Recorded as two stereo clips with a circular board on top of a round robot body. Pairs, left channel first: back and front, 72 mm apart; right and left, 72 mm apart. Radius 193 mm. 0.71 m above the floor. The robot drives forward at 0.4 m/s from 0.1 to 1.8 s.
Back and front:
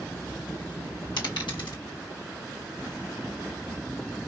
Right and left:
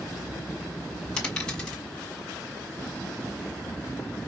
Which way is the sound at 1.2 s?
170° right.